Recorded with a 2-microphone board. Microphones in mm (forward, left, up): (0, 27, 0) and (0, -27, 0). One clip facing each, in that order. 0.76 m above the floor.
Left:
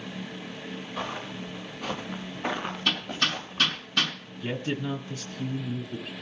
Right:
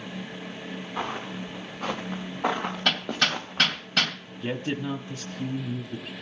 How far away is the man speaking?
About 1.4 m.